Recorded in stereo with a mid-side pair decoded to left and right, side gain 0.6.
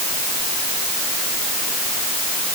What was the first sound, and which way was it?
Only background noise.